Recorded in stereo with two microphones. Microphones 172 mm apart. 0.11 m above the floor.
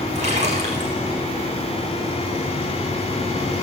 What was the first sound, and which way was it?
A splash, 40° right (ahead or behind).